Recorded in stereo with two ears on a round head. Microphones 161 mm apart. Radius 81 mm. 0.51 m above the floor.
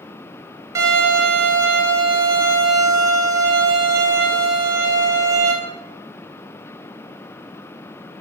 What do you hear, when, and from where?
0.8 s a violin: 20° right (ahead or behind), 1.5 m